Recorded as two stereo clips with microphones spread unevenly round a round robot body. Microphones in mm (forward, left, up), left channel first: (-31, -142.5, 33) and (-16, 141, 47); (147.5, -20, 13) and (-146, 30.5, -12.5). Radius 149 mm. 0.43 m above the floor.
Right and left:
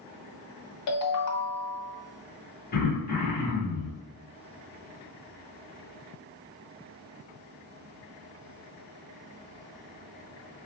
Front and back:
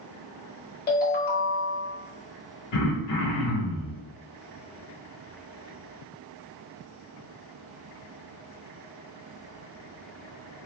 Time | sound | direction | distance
0.9 | a ringtone | 70° right | 0.8 m
2.7 | throat clearing | 35° right | 1.1 m